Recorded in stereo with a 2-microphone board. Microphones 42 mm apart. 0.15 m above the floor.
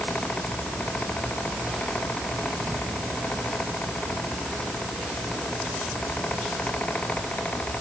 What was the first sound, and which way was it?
Only background noise.